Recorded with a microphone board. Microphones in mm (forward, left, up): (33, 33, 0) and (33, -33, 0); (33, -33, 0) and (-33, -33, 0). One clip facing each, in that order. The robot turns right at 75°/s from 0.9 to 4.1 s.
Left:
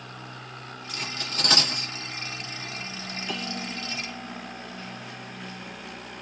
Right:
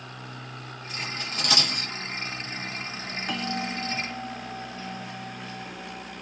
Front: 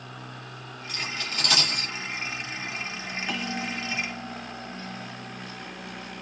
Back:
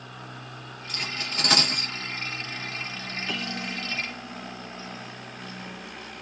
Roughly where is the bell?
Right.